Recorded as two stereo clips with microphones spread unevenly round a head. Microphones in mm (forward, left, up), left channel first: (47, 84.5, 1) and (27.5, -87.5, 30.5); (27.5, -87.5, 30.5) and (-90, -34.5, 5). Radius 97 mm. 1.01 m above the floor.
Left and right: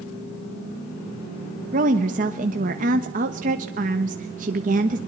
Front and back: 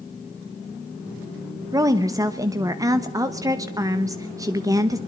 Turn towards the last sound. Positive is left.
turn(degrees=-150)